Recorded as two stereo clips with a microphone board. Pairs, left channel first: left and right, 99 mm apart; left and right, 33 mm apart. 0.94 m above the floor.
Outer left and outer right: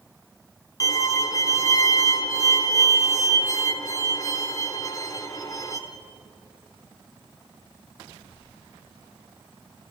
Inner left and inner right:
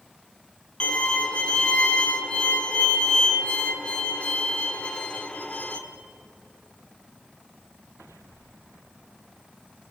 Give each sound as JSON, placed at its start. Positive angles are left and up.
{"t": 0.8, "sound": "a violin", "side_deg": 35, "distance_m": 1.8}